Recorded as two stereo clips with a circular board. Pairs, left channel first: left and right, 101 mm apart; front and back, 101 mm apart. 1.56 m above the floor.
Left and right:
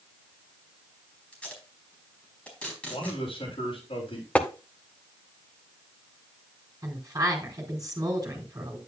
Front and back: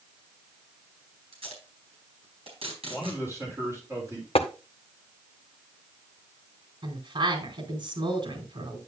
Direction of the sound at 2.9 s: 115° left.